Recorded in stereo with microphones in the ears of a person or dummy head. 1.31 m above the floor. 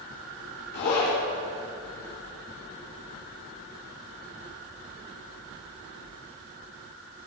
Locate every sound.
0.7 s a zipper: 60° left (ahead or behind), 5 m